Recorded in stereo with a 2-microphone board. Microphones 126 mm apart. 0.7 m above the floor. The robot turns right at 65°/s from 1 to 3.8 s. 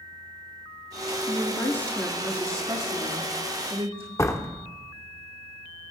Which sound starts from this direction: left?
A door slam, at 4.2 s.